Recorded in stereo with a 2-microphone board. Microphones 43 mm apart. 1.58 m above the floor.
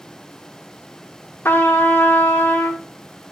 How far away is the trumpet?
About 0.7 m.